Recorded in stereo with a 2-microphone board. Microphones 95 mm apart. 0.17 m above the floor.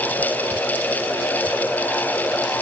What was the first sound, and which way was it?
Only background noise.